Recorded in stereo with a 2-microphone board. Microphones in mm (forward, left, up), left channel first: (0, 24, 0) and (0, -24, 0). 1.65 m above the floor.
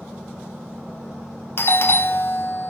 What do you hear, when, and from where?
1.6 s a doorbell: 50° left (ahead or behind), 0.7 m